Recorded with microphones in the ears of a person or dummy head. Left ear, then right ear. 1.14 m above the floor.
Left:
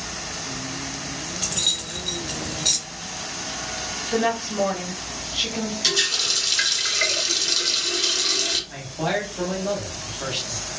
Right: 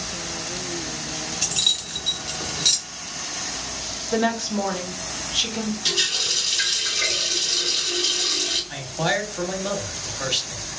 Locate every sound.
1.4 s keys jangling: 10° right (ahead or behind), 0.5 m
4.1 s a woman speaking: 40° right (ahead or behind), 0.9 m
5.8 s a running tap: 70° left (ahead or behind), 1.2 m
8.7 s a man speaking: 45° right (ahead or behind), 0.9 m